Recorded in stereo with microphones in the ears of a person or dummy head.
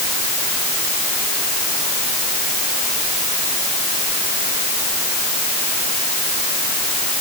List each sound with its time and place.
Only background noise.